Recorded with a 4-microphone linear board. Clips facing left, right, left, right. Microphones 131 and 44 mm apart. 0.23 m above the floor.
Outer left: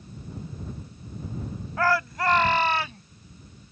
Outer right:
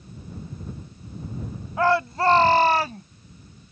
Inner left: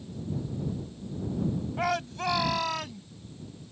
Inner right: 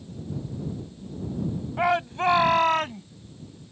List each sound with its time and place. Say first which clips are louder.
1.8 s a shout: outer right 4 dB, inner right 8 dB; 20° right (ahead or behind); by 3.0 s 45° right (ahead or behind)